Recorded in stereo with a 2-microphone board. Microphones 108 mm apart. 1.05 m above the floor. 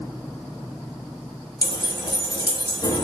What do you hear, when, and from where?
1.6 s keys jangling: 40° left (ahead or behind), 0.9 m